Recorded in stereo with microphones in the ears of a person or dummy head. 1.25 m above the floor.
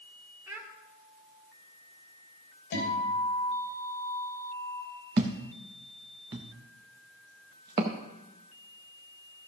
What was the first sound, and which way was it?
A child speaking, 10° right (ahead or behind).